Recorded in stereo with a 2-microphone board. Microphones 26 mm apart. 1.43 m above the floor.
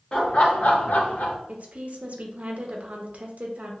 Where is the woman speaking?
55° right (ahead or behind), 0.6 m.